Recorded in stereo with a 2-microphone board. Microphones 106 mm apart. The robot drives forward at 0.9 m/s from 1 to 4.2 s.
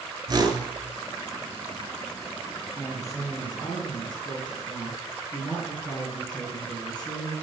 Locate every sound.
0.3 s a whoosh: 40° right (ahead or behind), 1.3 m
2.8 s a woman speaking: 30° left (ahead or behind), 3 m; by 7.3 s 45° left (ahead or behind), 2 m